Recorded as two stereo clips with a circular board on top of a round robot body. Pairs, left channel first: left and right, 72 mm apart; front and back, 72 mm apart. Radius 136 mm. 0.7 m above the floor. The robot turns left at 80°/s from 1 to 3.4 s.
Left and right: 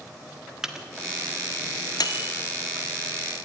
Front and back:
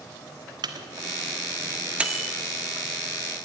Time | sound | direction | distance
0.6 | a microwave | 175° right | 1.7 m